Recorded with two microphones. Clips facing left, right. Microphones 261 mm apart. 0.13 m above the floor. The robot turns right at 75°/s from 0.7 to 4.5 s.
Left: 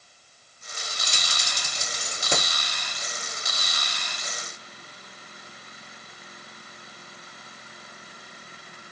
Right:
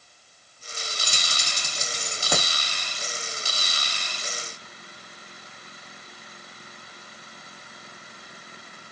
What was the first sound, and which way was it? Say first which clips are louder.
Keys jangling: right 1 dB; 50° right (ahead or behind).